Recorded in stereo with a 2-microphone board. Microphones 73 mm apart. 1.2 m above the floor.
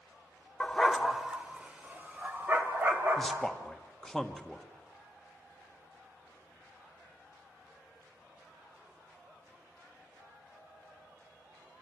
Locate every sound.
0.6 s a dog barking: 15° left (ahead or behind), 0.9 m; by 3.5 s 35° right (ahead or behind), 2.5 m
3.2 s a man speaking: 5° left (ahead or behind), 1.5 m